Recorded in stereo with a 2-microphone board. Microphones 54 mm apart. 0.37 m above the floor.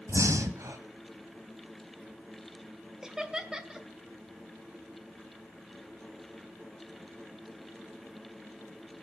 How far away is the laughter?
About 1.3 m.